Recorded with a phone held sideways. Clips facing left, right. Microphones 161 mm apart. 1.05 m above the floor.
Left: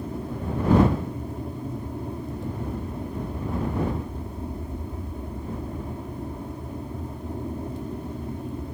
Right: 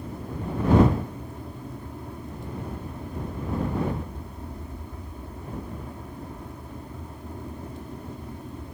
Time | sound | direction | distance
0.0 | an aircraft | 25° left (ahead or behind) | ?